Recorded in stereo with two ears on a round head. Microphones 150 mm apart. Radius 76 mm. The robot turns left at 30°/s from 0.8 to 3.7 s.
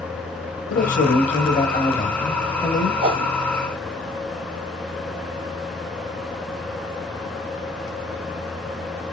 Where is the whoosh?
35° right (ahead or behind), 0.9 m.